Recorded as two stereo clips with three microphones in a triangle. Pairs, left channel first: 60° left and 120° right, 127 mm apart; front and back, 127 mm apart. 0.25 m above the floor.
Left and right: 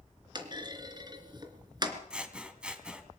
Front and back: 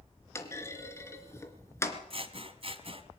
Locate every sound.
0.3 s a clunk: 65° right, 3 m
2.1 s scissors: 160° left, 2 m